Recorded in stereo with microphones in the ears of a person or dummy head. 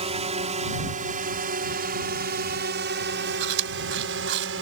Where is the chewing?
70° right (ahead or behind).